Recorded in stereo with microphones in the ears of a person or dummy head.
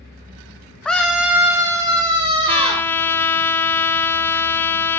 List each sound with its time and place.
0.8 s a scream: 5° left (ahead or behind), 0.7 m; by 2.9 s 30° right (ahead or behind), 1.5 m
2.5 s a trumpet: 10° left (ahead or behind), 0.7 m